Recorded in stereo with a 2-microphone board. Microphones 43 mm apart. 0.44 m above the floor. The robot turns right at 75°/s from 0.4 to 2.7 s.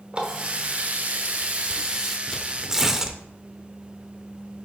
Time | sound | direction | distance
0.1 | a running tap | 140° right | 0.9 m
2.3 | tearing paper | 10° left (ahead or behind) | 0.6 m